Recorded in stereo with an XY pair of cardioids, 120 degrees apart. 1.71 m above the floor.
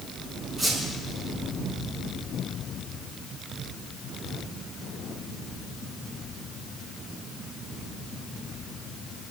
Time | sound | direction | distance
0.6 | a squeak | 35° right | 6.5 m